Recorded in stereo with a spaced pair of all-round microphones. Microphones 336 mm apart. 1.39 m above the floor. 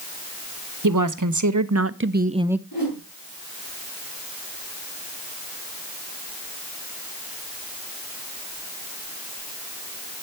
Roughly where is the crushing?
I don't hear crushing.